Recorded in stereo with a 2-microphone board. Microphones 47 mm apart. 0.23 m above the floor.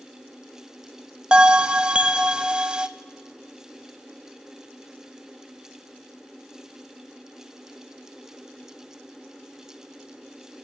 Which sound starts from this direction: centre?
A bell, at 1.3 s.